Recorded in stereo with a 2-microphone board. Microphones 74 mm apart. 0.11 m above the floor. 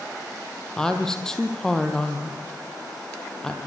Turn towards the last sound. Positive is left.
turn(degrees=10)  # may be behind; listen again after turning